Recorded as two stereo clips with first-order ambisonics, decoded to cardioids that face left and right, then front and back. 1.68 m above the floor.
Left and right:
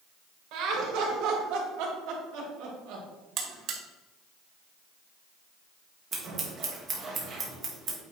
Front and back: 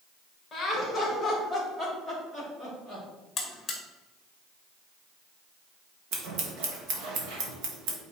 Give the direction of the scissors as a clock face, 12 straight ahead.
5 o'clock.